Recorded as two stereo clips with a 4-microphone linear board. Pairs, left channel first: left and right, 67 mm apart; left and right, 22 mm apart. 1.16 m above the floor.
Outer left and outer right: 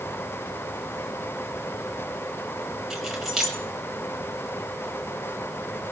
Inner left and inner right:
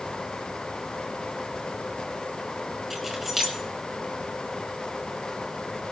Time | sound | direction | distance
2.9 | keys jangling | 5° right (ahead or behind) | 3.5 m